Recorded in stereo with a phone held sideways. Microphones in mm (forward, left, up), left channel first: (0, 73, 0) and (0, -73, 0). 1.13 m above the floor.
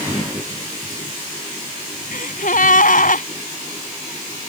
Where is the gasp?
65° left (ahead or behind).